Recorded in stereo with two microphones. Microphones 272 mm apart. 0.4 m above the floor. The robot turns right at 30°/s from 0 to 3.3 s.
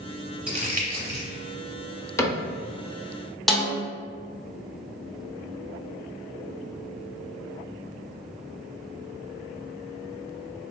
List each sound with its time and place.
0.5 s crumpling: 20° right (ahead or behind), 0.9 m; by 1.3 s 45° right (ahead or behind), 0.9 m
2.2 s a cupboard door: 10° left (ahead or behind), 0.5 m; by 2.4 s 15° left (ahead or behind), 0.5 m
3.5 s a snare drum: centre (ahead or behind), 0.7 m